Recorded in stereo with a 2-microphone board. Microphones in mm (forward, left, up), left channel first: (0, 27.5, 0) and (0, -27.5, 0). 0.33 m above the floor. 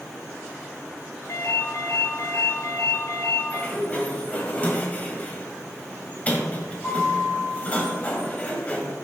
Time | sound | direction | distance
1.3 | a ringtone | 60° left (ahead or behind) | 2.5 m
3.5 | a sliding door | 25° left (ahead or behind) | 1.6 m